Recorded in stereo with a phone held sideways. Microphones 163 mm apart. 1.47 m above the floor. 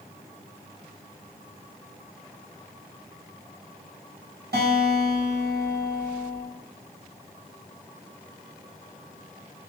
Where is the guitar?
80° right, 2 m.